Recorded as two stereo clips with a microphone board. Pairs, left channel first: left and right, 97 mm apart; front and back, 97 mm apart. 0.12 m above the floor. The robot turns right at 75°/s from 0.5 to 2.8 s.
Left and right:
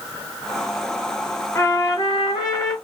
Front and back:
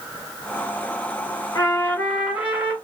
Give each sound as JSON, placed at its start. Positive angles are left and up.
{"t": 1.6, "sound": "a trumpet", "azimuth_deg": 35, "distance_m": 2.0}